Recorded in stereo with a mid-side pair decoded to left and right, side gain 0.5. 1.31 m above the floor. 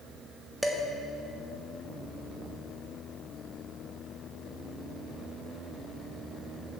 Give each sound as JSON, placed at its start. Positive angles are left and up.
{"t": 0.6, "sound": "dishes clattering", "azimuth_deg": 5, "distance_m": 1.2}